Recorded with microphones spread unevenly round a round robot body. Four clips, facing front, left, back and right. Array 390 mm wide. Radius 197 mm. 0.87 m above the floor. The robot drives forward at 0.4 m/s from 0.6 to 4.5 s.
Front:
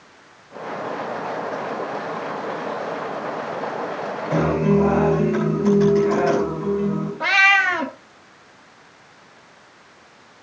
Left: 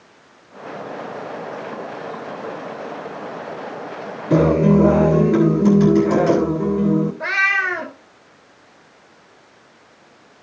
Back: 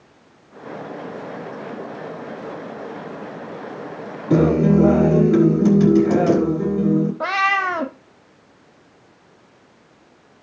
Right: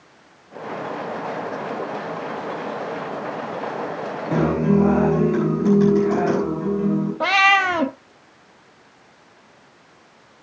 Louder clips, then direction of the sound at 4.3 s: Left 5 dB, back 4 dB; 160° left.